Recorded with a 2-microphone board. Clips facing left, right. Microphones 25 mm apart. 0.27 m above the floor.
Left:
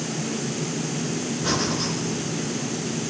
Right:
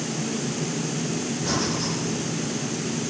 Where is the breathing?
30° left (ahead or behind), 4 m.